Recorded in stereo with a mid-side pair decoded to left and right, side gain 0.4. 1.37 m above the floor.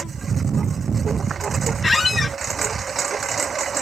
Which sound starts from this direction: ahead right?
A lawn mower, at 0.0 s.